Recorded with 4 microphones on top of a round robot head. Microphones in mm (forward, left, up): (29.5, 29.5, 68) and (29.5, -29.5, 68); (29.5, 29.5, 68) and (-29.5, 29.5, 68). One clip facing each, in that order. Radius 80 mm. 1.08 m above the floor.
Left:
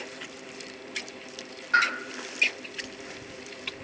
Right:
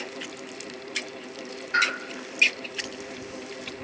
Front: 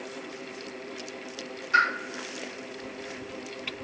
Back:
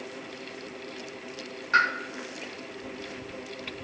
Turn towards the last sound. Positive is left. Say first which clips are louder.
# left 1 dB, even
turn(degrees=130)